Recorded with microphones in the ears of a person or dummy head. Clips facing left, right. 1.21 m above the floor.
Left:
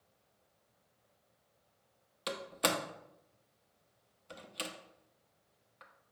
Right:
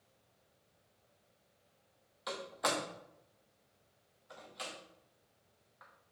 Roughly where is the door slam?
Left.